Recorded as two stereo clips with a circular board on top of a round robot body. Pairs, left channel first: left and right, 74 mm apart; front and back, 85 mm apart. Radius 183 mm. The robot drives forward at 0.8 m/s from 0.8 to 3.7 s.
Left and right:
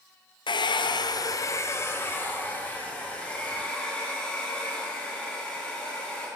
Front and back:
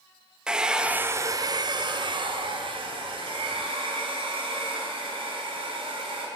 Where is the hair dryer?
100° left, 0.6 m; by 6.3 s 165° left, 2.5 m.